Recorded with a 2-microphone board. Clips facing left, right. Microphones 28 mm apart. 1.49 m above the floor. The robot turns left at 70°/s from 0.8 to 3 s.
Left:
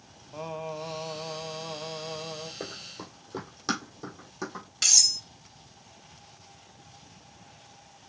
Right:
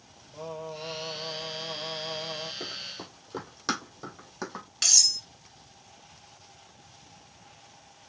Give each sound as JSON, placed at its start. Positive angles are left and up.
{"t": 0.3, "sound": "singing", "azimuth_deg": 85, "distance_m": 1.0}
{"t": 2.6, "sound": "running footsteps", "side_deg": 25, "distance_m": 1.9}
{"t": 4.8, "sound": "cutlery clinking", "side_deg": 0, "distance_m": 1.9}